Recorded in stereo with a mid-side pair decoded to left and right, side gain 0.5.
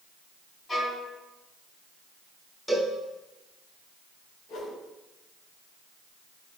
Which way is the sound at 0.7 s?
35° left.